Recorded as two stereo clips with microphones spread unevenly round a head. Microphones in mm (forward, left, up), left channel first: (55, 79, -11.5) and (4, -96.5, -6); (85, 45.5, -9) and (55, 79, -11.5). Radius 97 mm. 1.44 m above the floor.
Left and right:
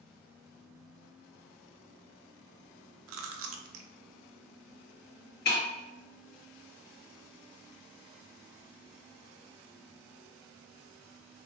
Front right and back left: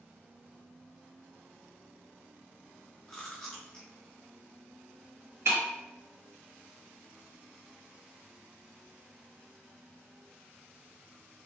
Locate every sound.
3.1 s chewing: 130° right, 0.6 m
5.5 s breaking glass: 110° left, 1.2 m